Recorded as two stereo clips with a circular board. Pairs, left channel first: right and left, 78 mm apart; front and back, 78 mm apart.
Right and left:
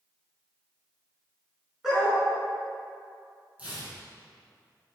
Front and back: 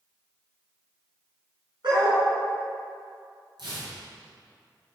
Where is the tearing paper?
165° left, 3.5 m.